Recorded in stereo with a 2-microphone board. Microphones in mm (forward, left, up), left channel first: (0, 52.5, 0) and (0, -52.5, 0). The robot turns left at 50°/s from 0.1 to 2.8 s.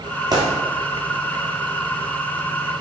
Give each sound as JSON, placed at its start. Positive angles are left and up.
{"t": 0.3, "sound": "a gunshot", "side_deg": -40, "distance_m": 3.0}